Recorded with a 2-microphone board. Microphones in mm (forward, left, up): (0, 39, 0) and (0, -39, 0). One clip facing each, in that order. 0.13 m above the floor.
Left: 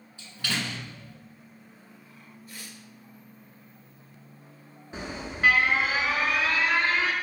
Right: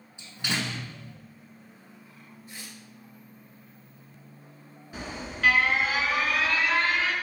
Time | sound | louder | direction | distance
0.2 | a door slam | right 1 dB | 20° right (ahead or behind) | 0.9 m
2.5 | tearing paper | even | 25° right (ahead or behind) | 1.1 m
4.9 | an alarm | left 1 dB | 25° left (ahead or behind) | 0.9 m